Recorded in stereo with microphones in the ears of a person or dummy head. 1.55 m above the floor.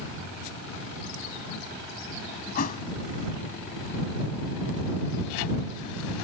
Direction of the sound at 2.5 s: 45° left (ahead or behind).